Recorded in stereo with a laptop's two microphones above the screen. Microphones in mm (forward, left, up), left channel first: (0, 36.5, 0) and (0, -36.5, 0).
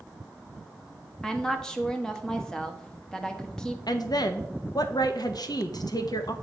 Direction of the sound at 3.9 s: 65° left (ahead or behind).